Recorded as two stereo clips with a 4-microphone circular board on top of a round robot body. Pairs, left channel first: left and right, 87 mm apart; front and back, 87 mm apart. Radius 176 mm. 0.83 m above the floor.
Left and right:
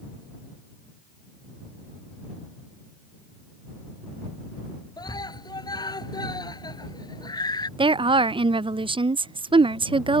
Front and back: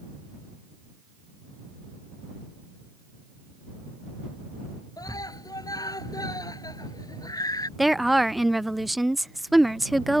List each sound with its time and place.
5.0 s a scream: 50° left
7.8 s a woman speaking: 90° right